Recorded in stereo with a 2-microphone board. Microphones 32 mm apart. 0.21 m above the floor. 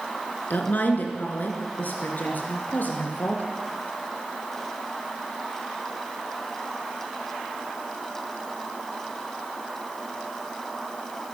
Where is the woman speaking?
65° left (ahead or behind), 3 m; by 3.4 s 70° left (ahead or behind), 4 m.